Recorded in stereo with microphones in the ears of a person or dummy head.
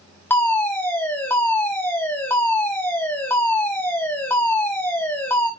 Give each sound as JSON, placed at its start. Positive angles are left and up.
{"t": 0.3, "sound": "a fire alarm", "side_deg": 15, "distance_m": 6.0}